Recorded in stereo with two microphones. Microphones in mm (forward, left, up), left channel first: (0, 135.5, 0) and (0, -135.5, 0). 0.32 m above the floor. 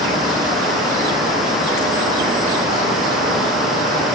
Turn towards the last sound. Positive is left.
No sound to turn to.